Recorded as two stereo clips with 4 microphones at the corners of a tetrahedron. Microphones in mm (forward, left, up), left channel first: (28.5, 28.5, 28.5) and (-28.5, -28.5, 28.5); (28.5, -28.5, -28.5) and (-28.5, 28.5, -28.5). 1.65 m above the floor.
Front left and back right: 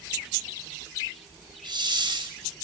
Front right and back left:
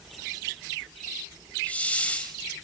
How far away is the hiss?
About 6 m.